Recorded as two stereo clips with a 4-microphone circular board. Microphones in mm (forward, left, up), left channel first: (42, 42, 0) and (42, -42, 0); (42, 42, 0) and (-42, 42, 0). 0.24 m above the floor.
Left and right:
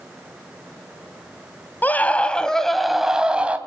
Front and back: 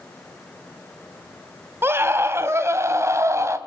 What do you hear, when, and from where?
1.8 s a scream: 140° left, 1.6 m; by 3.6 s 155° right, 1.6 m